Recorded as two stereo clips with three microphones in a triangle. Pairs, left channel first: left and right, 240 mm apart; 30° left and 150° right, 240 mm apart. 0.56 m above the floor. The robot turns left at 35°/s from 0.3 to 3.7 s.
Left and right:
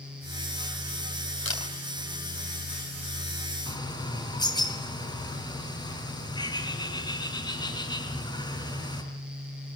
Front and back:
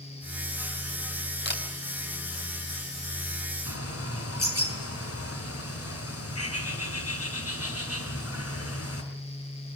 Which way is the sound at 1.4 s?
70° left.